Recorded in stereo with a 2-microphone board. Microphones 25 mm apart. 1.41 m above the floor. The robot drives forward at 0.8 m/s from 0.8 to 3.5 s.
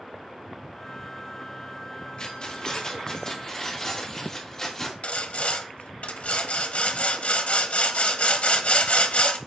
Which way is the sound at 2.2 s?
40° left (ahead or behind).